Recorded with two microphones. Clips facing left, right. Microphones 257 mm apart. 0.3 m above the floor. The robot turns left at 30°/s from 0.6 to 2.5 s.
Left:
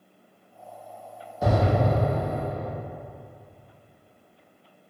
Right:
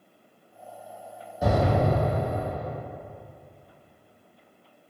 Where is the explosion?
10° right (ahead or behind), 1.4 m; by 2.7 s 20° right (ahead or behind), 1.4 m.